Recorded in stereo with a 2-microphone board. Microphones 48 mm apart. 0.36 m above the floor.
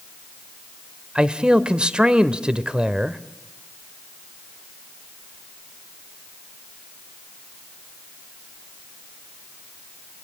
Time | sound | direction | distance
1.1 | a man speaking | 20° right (ahead or behind) | 1.0 m